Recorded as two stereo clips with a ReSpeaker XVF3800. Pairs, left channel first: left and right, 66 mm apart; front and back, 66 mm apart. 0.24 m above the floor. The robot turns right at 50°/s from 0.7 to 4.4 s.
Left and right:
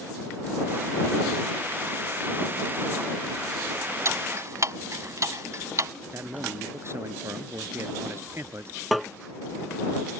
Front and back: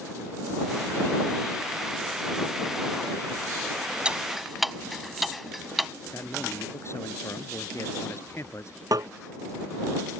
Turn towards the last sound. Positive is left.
turn(degrees=-175)